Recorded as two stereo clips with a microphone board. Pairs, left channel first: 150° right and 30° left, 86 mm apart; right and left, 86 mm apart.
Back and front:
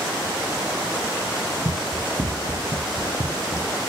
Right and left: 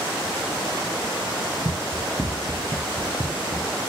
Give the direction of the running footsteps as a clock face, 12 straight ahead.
11 o'clock.